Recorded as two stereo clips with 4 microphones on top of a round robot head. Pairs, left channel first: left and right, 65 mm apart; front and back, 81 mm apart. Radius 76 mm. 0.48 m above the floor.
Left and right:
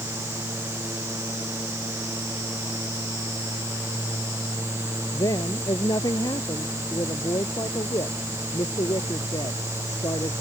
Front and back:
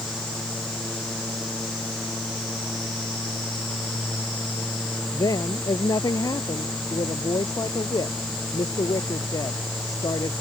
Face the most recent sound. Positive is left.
turn(degrees=45)